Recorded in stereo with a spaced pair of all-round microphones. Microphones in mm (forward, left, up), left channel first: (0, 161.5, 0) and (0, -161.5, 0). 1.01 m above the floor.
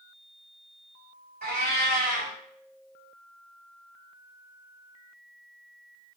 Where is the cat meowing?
30° right (ahead or behind), 1.5 m.